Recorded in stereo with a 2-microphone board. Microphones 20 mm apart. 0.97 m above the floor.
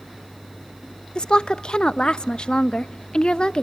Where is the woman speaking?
50° left (ahead or behind), 0.6 m.